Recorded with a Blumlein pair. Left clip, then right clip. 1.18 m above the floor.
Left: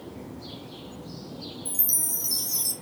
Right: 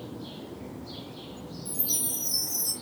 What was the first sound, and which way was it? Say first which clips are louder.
A chime: even; 65° left.